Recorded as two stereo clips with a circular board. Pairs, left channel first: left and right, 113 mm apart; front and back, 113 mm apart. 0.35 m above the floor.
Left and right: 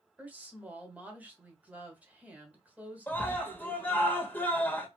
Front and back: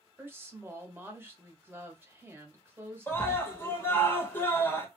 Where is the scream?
35° left, 1.2 m.